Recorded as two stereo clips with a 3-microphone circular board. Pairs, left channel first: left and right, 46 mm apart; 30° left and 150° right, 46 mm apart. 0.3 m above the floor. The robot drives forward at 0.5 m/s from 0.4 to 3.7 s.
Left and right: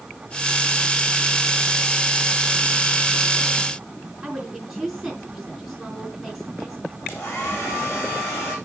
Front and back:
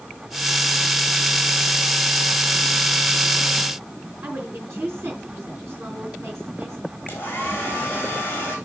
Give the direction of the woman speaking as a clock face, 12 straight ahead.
6 o'clock.